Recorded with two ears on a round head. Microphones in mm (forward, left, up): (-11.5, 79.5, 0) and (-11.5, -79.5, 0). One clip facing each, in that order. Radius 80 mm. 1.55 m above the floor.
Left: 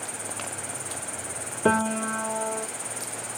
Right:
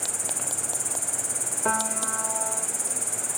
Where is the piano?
40° left (ahead or behind).